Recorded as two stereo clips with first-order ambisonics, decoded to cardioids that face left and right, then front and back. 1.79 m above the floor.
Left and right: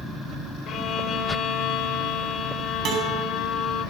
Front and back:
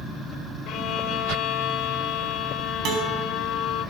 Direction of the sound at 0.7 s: 40° left.